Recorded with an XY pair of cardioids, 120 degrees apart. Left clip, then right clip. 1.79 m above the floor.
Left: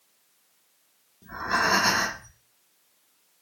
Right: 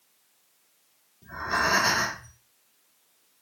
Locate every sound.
1.2 s breathing: 15° left, 1.0 m